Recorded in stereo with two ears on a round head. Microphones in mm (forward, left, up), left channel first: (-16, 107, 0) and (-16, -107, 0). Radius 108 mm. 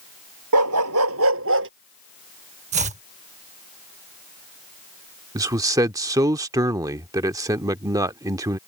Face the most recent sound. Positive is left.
turn(degrees=-15)  # may be behind; listen again after turning